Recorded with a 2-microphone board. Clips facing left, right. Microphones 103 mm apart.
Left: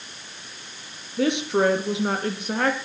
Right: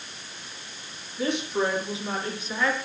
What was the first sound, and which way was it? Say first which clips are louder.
A woman speaking: left 5 dB; 70° left (ahead or behind).